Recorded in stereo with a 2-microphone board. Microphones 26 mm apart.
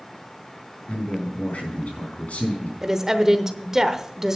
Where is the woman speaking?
20° right (ahead or behind), 0.9 m.